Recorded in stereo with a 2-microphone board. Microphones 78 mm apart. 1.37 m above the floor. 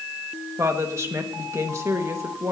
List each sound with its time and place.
0.6 s a woman speaking: 40° right (ahead or behind), 1.7 m